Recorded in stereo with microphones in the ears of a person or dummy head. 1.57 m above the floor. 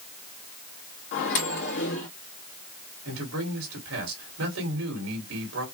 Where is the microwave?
70° left (ahead or behind), 1.7 m.